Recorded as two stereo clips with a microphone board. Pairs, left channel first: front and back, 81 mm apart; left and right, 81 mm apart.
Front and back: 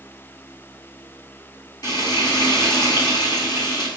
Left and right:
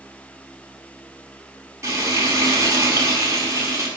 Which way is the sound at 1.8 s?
35° right.